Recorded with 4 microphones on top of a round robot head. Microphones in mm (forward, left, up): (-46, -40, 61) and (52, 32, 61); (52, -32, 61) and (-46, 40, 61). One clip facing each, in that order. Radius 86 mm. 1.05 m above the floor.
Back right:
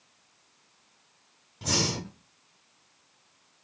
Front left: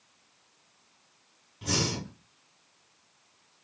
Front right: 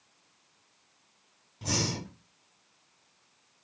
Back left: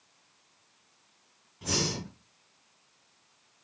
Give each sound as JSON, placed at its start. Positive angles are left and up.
{"t": 1.6, "sound": "breathing", "azimuth_deg": -95, "distance_m": 1.8}